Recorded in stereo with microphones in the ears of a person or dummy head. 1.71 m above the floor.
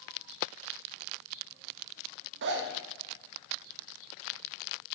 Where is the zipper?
65° right (ahead or behind), 0.6 m.